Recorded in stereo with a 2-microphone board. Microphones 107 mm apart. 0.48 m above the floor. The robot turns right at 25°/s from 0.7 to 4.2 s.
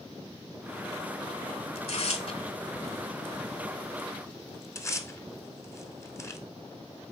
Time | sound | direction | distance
1.8 | tearing paper | 70° left (ahead or behind) | 0.8 m